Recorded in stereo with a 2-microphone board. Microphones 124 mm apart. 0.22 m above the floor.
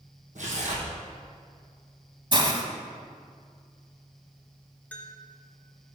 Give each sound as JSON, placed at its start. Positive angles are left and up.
{"t": 0.3, "sound": "tearing paper", "side_deg": -70, "distance_m": 2.5}
{"t": 2.3, "sound": "a hiss", "side_deg": -35, "distance_m": 1.0}
{"t": 4.9, "sound": "a bell", "side_deg": 15, "distance_m": 1.6}